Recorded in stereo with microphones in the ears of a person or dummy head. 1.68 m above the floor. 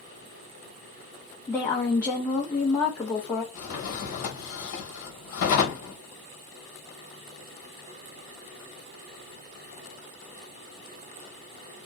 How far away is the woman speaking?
About 0.6 m.